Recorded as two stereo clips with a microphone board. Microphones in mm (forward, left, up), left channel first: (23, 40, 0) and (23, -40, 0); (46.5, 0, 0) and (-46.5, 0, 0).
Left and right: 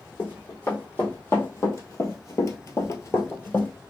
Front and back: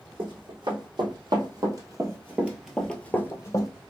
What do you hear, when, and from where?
0.2 s running footsteps: 155° left, 2.5 m; by 3.7 s 30° left, 1.3 m